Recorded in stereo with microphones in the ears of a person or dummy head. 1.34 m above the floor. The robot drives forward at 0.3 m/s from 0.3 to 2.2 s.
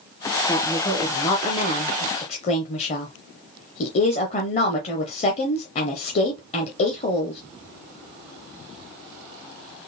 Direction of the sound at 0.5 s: 25° left (ahead or behind).